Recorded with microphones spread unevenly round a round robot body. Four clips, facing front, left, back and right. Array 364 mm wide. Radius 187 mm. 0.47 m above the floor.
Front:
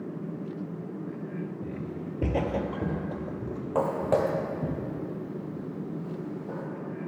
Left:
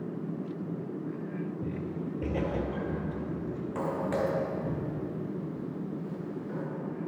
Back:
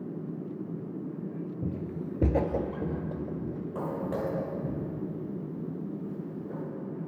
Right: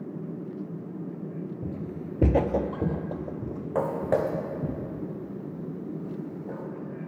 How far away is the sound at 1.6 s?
About 0.6 m.